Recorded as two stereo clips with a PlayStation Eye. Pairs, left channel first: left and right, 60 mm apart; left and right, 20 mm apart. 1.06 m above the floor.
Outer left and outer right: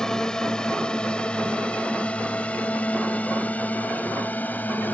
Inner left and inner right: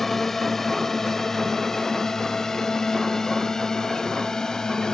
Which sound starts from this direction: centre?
A drone, at 0.0 s.